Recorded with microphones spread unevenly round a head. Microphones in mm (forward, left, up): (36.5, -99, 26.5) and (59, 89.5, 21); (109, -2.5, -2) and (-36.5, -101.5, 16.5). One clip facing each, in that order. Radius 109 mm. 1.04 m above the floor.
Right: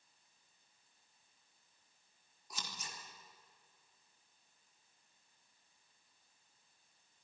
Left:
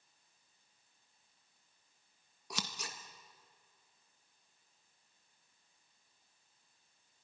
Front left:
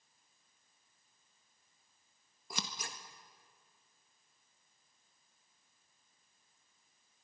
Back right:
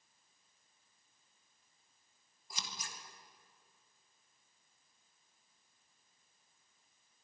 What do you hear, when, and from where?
2.5 s scissors: 70° left, 1.6 m